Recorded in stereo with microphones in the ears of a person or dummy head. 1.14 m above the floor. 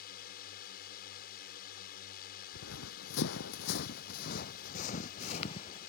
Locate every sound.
0.0 s a drone: 55° left (ahead or behind)
2.5 s running footsteps: 65° left (ahead or behind); by 5.9 s 35° left (ahead or behind)